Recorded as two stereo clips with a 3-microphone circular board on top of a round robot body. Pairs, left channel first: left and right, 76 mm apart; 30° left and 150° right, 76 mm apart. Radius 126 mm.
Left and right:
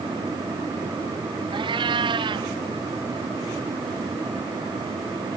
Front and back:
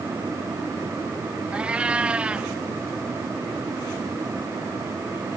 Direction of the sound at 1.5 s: 75° right.